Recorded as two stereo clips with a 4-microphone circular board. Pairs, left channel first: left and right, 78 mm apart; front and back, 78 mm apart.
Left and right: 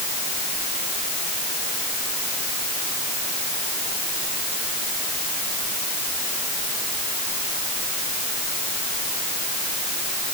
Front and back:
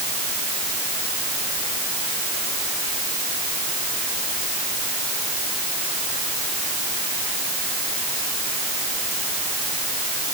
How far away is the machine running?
No machine running in this recording.